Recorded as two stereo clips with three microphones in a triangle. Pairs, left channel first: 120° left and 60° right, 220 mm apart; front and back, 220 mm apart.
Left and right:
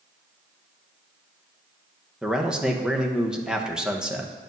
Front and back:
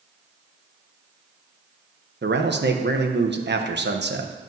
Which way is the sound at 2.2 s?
145° right.